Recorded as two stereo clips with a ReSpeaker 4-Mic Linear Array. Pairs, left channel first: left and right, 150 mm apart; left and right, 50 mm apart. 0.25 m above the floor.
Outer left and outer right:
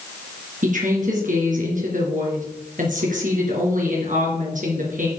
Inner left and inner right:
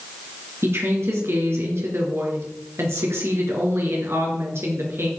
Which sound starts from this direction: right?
A woman speaking, at 0.6 s.